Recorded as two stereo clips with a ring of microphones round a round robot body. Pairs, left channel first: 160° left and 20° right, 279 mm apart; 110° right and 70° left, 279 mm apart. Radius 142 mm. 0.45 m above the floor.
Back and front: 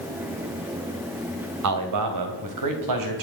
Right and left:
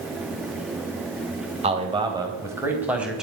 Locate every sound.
1.6 s a man speaking: straight ahead, 3 m; by 3.2 s 20° right, 4 m